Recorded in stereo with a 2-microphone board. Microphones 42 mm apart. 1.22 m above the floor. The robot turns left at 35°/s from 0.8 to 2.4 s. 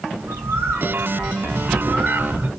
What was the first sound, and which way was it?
A bird, 100° right.